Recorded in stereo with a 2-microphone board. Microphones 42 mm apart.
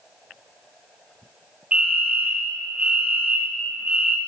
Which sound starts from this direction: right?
A fire alarm, at 1.7 s.